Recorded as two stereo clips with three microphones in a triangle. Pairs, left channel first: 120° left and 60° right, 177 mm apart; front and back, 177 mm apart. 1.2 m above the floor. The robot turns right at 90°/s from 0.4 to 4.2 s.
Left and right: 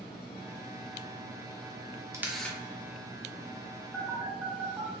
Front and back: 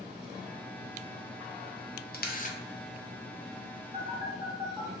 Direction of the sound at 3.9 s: 145° right.